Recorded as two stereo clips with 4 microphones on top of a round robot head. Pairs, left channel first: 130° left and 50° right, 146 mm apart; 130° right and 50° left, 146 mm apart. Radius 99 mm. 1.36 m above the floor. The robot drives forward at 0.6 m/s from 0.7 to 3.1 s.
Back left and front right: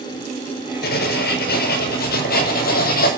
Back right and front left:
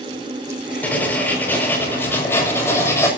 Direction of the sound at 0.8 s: 150° left.